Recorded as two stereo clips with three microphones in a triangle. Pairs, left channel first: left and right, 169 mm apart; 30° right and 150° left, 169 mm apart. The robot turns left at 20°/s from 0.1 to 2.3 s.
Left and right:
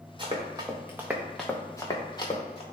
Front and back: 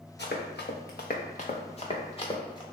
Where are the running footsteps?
25° right, 0.9 m; by 2.6 s 35° left, 1.0 m.